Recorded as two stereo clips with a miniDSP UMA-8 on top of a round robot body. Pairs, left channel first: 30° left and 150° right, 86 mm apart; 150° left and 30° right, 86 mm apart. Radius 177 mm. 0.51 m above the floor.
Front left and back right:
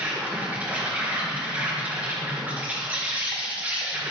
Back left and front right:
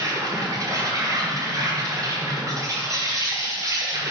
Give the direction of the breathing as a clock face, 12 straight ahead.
No breathing in this recording.